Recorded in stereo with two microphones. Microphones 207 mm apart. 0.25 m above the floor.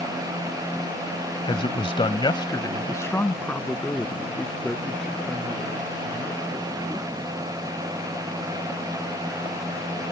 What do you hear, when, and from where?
1.4 s a man speaking: 25° left (ahead or behind); by 7.3 s centre (ahead or behind)